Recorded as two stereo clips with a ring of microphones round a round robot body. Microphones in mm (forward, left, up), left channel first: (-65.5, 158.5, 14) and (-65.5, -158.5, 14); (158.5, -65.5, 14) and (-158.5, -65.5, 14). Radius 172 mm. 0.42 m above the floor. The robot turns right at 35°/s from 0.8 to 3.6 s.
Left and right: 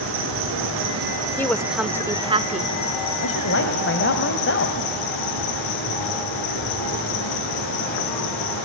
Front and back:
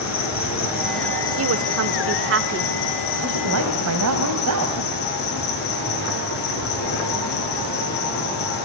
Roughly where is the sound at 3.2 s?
Behind left.